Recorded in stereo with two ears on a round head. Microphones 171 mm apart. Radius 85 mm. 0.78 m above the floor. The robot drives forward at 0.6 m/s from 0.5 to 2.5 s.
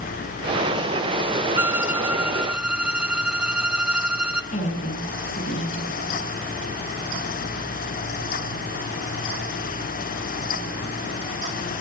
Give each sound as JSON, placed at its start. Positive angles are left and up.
{"t": 1.6, "sound": "a violin", "side_deg": -10, "distance_m": 0.5}
{"t": 4.5, "sound": "a woman speaking", "side_deg": 35, "distance_m": 8.0}